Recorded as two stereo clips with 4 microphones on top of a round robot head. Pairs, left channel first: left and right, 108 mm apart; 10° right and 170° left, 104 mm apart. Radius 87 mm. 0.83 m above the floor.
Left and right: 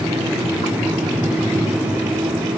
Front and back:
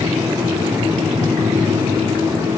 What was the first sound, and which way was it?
Only background noise.